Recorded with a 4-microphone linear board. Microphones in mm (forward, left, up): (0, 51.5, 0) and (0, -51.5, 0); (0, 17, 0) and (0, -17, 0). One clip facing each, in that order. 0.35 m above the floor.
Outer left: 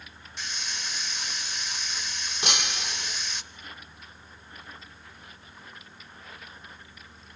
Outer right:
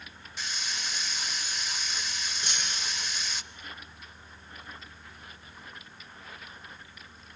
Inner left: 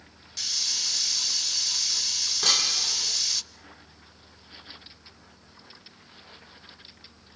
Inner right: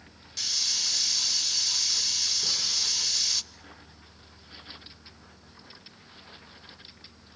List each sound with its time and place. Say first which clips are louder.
0.4 s a hiss: even, even; centre (ahead or behind), 0.9 m
2.4 s breaking glass: outer left 8 dB, inner left 5 dB; 80° left, 2.5 m